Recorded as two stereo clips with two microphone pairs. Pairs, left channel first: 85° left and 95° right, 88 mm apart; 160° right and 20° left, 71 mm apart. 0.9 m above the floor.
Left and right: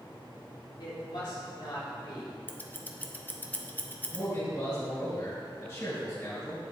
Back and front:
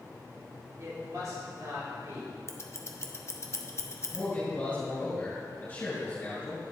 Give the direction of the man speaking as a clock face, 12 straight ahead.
7 o'clock.